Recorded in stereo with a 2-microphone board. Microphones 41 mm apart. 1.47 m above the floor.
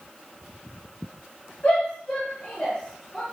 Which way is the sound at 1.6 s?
45° left (ahead or behind).